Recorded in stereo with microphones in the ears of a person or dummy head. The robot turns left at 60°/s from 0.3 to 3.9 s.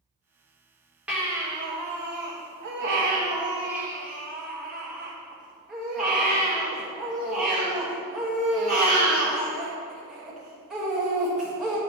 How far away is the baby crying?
About 1.2 m.